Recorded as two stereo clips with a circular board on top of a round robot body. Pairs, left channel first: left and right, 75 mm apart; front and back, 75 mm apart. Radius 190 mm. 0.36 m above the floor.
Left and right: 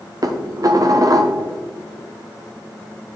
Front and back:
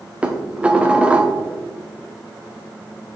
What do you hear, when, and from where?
0.2 s dishes clattering: 110° right, 1.1 m